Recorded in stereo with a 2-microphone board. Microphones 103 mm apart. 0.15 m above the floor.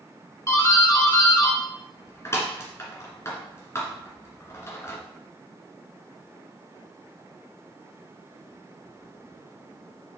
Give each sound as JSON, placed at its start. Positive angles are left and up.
{"t": 0.5, "sound": "a doorbell", "side_deg": 25, "distance_m": 2.0}